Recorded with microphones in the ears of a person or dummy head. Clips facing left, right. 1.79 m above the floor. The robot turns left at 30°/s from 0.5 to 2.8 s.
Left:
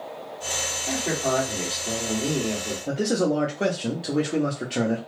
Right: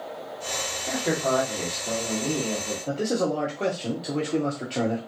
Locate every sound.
0.9 s a man speaking: 160° right, 1.3 m; by 2.8 s 140° left, 1.3 m
2.9 s a man speaking: 10° left (ahead or behind), 0.6 m